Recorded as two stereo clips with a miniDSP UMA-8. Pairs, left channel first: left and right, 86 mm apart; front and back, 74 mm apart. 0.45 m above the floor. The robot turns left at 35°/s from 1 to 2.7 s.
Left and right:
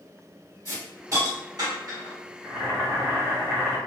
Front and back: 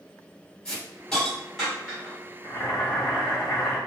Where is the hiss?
70° right, 1.7 m; by 2.1 s 115° right, 1.7 m.